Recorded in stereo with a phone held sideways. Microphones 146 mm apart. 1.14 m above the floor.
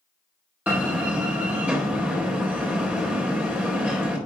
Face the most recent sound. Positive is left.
turn(degrees=-10)  # may be behind; listen again after turning